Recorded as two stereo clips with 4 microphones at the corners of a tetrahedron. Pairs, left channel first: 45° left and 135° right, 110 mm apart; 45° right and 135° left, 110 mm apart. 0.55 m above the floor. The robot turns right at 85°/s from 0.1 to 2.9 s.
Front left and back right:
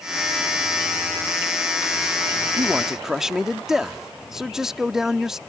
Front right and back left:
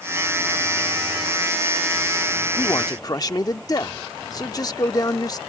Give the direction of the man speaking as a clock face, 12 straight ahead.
3 o'clock.